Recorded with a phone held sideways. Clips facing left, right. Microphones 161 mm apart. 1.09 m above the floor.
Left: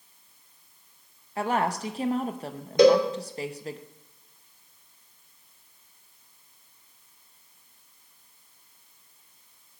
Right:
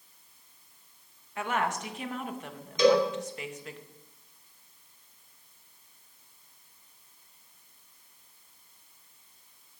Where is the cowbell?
60° left (ahead or behind), 2.5 m.